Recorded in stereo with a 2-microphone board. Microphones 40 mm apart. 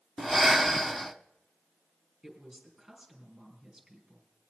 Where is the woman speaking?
5° right (ahead or behind), 4.5 m.